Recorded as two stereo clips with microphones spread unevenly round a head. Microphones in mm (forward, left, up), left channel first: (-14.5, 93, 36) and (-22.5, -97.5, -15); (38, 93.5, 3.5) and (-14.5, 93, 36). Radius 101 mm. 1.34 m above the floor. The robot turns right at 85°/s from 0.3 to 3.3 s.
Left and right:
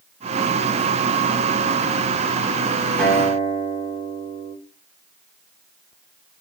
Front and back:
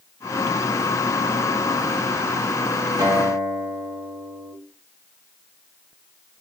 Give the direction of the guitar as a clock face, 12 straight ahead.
6 o'clock.